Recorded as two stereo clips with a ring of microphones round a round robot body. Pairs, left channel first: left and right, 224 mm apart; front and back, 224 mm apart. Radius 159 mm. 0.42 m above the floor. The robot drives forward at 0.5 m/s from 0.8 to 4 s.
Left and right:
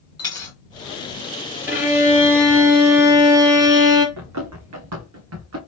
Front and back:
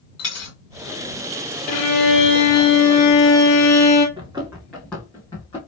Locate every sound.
0.2 s a dropped coin: 15° left, 2.5 m
1.7 s a violin: 10° right, 2.5 m; by 4.1 s 15° right, 1.3 m
4.2 s running footsteps: 105° right, 1.7 m; by 5.6 s 75° right, 2 m